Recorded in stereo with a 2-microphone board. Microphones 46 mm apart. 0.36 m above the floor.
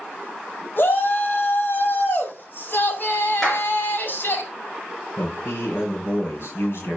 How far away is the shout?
About 2.5 m.